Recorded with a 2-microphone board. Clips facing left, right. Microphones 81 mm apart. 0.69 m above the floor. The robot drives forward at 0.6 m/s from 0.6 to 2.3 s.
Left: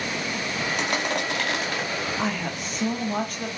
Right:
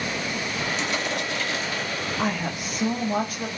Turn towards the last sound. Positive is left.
turn(degrees=-5)  # may be behind; listen again after turning